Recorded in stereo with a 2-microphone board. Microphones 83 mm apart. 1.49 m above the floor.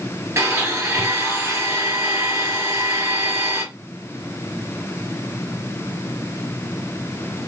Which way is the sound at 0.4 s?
30° right (ahead or behind).